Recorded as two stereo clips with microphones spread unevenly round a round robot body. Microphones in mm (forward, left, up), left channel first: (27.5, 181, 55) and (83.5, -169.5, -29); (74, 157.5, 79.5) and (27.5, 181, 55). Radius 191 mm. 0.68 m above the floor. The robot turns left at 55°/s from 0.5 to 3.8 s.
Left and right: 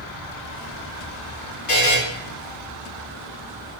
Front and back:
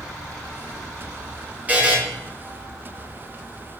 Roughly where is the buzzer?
Behind left.